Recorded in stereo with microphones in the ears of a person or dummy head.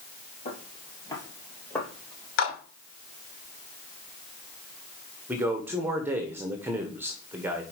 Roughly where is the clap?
Left.